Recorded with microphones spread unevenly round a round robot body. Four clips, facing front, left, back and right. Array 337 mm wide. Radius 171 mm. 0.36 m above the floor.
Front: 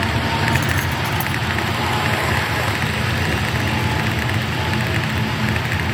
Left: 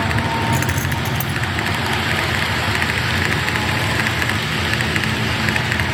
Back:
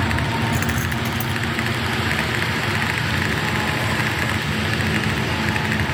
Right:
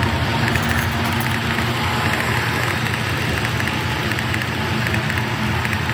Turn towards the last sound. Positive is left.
turn(degrees=75)